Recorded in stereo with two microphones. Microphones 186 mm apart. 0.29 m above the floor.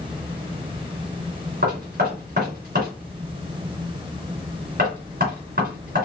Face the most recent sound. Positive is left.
turn(degrees=-60)  # may be behind; listen again after turning